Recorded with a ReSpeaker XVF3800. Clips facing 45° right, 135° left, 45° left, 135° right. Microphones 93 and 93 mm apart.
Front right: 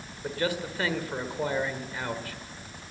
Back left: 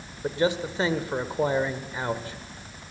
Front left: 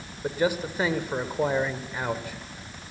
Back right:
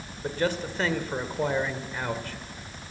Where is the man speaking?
110° left, 1.5 m.